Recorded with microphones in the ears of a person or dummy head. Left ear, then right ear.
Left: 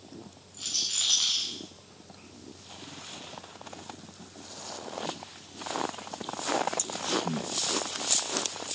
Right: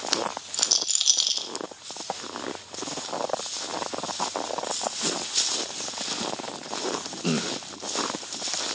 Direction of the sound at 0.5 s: 70° right (ahead or behind).